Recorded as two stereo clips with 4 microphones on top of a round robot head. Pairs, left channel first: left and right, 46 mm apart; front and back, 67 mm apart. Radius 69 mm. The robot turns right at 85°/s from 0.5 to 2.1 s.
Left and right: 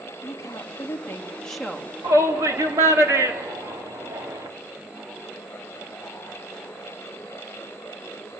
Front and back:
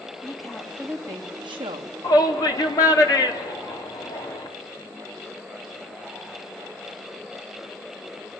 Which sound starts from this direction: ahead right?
A shout, at 2.0 s.